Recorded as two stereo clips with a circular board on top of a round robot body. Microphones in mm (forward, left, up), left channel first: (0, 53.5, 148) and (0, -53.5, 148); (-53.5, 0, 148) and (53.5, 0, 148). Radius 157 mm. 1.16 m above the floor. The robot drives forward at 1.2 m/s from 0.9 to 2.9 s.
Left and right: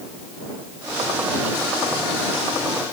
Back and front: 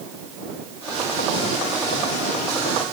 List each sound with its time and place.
Only background noise.